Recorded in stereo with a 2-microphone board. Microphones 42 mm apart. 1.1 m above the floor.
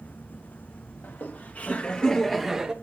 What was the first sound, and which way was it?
Laughter, 50° left (ahead or behind).